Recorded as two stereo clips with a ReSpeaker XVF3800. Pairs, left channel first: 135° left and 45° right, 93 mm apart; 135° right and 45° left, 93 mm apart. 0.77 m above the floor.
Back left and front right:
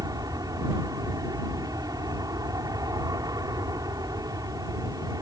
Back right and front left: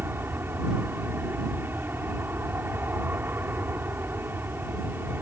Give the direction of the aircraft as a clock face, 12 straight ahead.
12 o'clock.